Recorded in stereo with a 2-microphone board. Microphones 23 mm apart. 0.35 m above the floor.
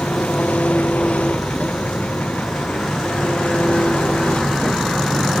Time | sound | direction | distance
0.0 | an engine running | 80° left | ?